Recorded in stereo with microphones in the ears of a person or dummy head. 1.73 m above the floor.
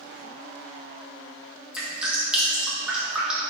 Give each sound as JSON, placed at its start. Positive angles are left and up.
{"t": 1.7, "sound": "dripping", "side_deg": -10, "distance_m": 1.9}